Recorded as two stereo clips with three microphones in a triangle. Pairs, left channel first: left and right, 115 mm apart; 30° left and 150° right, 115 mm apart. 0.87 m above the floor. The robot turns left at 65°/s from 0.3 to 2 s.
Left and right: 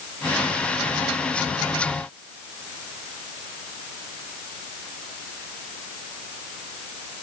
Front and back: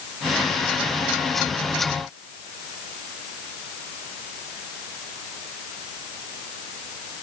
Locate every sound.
Only background noise.